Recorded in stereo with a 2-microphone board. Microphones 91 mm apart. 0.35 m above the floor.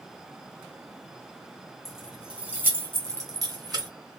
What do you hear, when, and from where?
1.9 s keys jangling: 5° right (ahead or behind), 1.4 m; by 3.9 s 50° right (ahead or behind), 0.9 m